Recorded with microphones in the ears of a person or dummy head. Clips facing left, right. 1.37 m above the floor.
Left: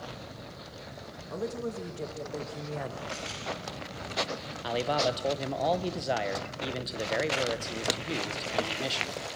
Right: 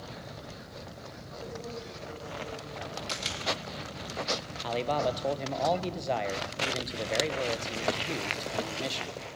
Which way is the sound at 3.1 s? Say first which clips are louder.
Even; 50° right (ahead or behind).